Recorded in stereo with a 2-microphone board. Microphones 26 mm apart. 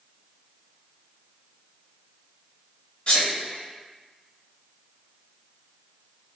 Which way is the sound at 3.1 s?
35° left (ahead or behind).